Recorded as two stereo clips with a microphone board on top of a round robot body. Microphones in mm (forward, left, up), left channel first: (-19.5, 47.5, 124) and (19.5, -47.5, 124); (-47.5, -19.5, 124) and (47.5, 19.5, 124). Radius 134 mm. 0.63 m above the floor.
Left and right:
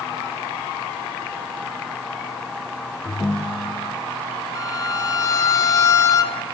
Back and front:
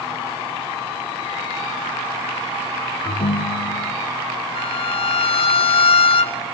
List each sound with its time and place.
3.0 s a ringtone: 170° right, 0.9 m
4.5 s a violin: 170° left, 1.2 m